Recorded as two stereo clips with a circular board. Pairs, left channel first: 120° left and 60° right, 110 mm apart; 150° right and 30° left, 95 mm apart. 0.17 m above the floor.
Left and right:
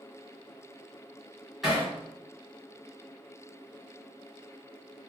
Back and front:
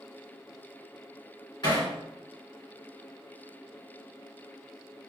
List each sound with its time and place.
1.6 s hammering: 145° right, 1.9 m